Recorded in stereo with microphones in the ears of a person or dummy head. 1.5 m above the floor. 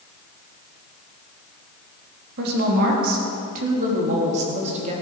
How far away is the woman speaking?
About 3.5 m.